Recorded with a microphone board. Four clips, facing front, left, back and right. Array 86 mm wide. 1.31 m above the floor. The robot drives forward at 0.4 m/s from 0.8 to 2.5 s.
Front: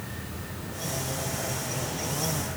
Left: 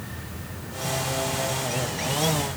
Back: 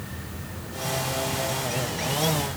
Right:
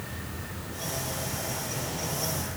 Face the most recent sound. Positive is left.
No sound to turn to.